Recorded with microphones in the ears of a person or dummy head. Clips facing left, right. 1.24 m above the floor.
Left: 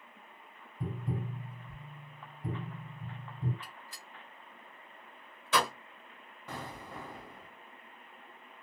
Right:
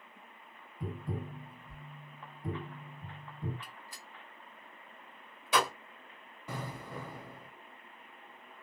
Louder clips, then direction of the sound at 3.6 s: Even; 15° right (ahead or behind).